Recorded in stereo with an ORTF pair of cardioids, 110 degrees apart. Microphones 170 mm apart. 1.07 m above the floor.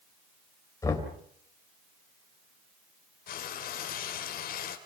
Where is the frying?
60° left, 3.5 m.